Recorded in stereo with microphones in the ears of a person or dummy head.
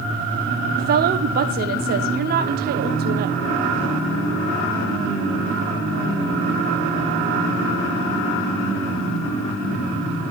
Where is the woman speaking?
50° right (ahead or behind), 1.1 m.